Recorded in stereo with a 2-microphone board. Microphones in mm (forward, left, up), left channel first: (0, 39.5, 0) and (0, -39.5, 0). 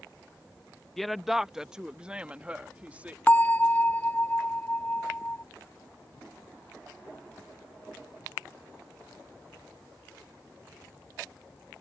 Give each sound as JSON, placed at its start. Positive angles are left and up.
{"t": 1.0, "sound": "a woman speaking", "side_deg": 0}
{"t": 3.3, "sound": "a bell", "side_deg": 20}